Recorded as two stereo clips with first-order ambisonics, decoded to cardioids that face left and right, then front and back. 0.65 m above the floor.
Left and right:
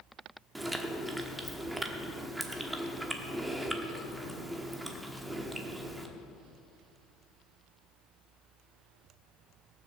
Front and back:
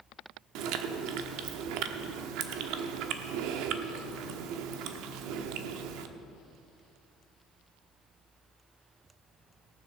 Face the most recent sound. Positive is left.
turn(degrees=-175)